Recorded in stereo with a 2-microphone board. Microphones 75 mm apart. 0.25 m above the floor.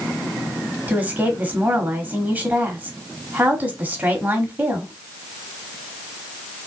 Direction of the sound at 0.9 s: 25° right (ahead or behind).